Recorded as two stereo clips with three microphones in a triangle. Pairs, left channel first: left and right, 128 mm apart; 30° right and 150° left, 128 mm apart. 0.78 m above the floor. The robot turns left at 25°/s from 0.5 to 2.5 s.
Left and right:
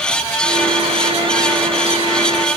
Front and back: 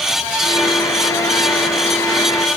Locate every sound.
Only background noise.